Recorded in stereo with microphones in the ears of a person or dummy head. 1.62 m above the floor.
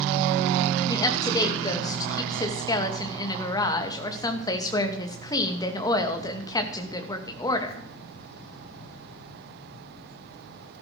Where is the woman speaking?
20° left (ahead or behind), 2.5 m.